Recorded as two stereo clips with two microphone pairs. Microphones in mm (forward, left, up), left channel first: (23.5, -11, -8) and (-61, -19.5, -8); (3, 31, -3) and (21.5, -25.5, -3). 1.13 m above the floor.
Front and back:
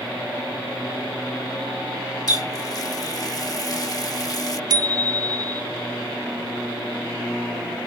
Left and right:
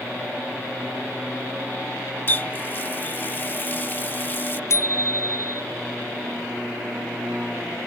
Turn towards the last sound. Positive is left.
turn(degrees=145)